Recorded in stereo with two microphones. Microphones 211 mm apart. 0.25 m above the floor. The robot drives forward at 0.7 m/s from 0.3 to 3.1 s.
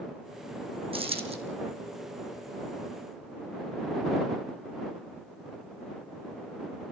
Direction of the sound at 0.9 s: 25° right (ahead or behind).